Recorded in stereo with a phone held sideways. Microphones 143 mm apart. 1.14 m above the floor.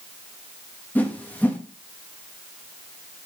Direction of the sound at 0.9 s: 15° left (ahead or behind).